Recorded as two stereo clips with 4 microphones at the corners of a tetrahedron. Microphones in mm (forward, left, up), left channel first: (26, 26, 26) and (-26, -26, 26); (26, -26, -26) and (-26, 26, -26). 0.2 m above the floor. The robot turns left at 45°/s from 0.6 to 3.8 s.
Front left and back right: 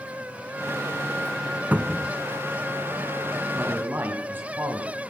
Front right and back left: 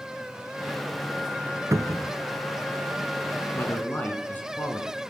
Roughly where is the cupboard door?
Behind.